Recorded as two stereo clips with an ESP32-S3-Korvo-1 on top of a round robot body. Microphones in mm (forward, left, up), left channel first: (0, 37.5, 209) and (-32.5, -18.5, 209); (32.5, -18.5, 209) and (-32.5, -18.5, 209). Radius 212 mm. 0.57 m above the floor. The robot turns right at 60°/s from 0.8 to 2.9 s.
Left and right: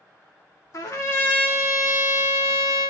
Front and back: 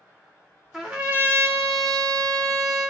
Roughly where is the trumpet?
Left.